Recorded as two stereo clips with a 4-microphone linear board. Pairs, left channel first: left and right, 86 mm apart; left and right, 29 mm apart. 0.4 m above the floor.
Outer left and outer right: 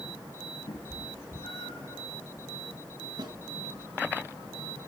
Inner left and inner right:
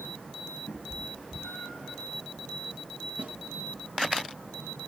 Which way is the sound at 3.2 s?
55° right (ahead or behind).